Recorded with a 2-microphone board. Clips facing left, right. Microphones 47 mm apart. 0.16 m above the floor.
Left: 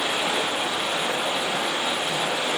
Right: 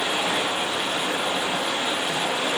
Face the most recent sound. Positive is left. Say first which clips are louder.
# even
turn(degrees=-35)  # may be behind; listen again after turning